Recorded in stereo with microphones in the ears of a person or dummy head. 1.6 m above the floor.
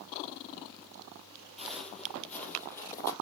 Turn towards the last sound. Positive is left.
turn(degrees=20)  # may be behind; listen again after turning